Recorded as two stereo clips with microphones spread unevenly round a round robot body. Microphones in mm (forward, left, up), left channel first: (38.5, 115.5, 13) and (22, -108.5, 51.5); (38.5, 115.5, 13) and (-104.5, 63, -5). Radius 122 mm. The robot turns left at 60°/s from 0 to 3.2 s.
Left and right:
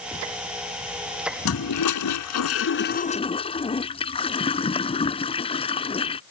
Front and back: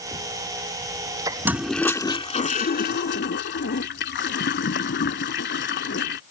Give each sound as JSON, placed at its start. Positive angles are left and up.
{"t": 1.4, "sound": "a toilet flushing", "azimuth_deg": 120}